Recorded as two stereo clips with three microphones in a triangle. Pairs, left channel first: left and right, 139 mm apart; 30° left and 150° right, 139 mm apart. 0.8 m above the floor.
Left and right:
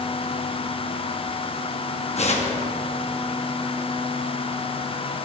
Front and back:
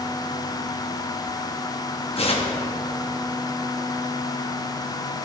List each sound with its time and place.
2.2 s tearing paper: 65° left, 0.9 m